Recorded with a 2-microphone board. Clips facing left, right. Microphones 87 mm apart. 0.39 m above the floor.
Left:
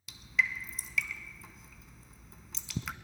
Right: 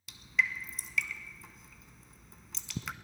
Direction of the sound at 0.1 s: Centre (ahead or behind).